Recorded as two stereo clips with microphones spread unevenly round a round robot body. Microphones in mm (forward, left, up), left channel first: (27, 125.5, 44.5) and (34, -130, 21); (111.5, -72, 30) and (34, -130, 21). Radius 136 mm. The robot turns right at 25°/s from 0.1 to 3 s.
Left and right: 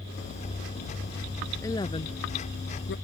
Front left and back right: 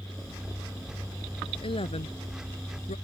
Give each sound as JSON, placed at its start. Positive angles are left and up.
{"t": 1.6, "sound": "a woman speaking", "azimuth_deg": 15}